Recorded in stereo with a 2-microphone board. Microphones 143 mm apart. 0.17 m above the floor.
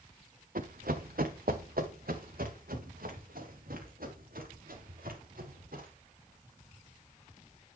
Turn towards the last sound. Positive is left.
turn(degrees=-80)